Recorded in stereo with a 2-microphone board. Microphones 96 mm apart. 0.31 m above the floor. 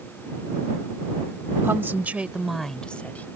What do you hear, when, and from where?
1.6 s a woman speaking: 25° right (ahead or behind); by 3.3 s 20° left (ahead or behind)